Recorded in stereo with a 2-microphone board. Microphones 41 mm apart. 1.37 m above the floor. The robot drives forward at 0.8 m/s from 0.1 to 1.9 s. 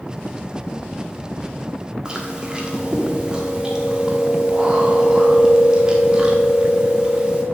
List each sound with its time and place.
2.0 s chewing: 20° right (ahead or behind), 1.6 m